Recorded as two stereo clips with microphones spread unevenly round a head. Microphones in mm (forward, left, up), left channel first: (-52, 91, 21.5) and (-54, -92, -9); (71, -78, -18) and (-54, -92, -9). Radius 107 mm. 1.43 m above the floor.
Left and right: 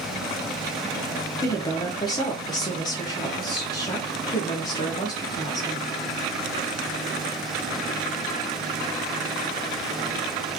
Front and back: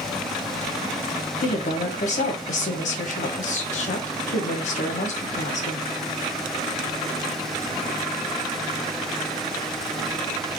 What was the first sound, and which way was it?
A woman speaking, 15° left.